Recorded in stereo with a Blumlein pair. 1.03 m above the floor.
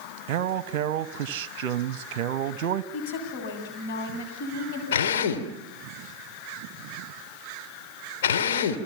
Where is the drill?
60° left, 2.5 m.